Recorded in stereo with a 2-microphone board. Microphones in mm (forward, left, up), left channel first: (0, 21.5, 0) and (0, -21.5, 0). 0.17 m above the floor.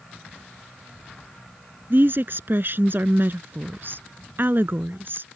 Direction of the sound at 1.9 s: 55° right (ahead or behind).